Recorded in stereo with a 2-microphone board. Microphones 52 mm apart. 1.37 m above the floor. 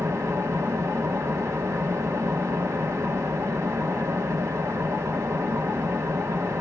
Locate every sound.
0.0 s an engine running: 65° right (ahead or behind), 1.4 m